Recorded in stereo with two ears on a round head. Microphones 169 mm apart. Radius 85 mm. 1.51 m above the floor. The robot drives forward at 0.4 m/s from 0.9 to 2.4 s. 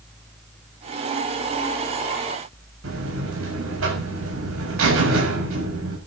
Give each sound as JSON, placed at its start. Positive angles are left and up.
{"t": 2.8, "sound": "a buzzer", "side_deg": -80, "distance_m": 7.0}